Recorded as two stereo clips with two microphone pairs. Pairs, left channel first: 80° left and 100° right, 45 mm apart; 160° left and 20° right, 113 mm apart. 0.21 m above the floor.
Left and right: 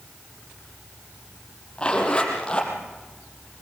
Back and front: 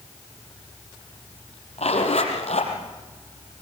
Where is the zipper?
150° left, 5 m.